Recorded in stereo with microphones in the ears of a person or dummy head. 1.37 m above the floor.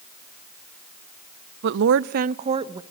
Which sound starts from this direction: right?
A woman speaking, at 1.6 s.